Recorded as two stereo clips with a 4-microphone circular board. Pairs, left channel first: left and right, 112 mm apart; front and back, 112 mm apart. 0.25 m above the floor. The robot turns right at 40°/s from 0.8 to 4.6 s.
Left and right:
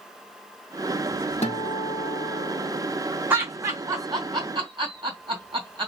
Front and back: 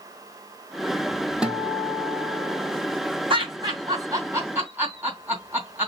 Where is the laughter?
160° right, 2.5 m; by 5.9 s 110° right, 2.5 m.